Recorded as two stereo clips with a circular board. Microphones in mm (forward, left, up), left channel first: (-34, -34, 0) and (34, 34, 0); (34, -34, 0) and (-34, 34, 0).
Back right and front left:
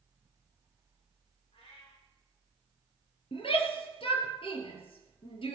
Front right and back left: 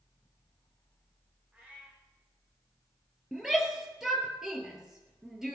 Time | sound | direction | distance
1.5 | a cat meowing | 150° right | 7.5 m
3.3 | a shout | 140° right | 3.5 m